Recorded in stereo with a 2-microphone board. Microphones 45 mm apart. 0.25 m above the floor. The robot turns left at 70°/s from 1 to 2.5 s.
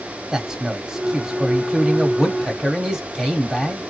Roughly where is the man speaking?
Centre.